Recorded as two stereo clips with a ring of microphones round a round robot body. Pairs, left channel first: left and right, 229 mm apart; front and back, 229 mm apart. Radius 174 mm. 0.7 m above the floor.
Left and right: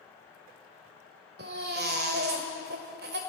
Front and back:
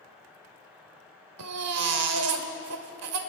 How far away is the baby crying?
About 1.3 m.